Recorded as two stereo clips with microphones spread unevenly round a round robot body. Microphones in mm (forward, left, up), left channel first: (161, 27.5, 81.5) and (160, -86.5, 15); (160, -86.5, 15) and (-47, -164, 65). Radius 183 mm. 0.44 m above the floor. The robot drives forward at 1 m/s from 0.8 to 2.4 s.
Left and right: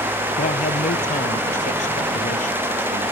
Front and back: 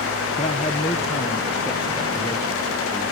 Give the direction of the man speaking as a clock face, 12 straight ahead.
9 o'clock.